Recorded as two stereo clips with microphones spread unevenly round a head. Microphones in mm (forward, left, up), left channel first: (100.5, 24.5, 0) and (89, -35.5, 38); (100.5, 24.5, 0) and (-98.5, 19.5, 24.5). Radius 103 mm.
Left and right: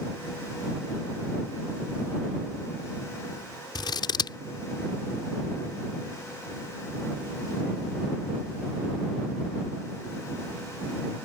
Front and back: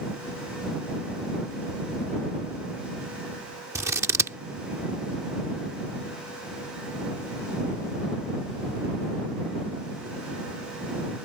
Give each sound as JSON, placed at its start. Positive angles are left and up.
{"t": 3.8, "sound": "scissors", "azimuth_deg": 105}